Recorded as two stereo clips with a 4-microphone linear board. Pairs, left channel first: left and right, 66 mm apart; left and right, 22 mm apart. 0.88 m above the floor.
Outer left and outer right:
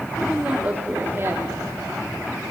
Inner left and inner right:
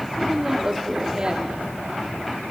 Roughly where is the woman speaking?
Centre.